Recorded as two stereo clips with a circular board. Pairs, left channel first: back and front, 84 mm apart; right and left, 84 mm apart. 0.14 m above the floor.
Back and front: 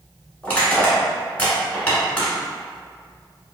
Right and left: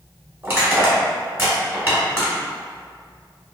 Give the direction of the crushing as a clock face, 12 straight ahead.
8 o'clock.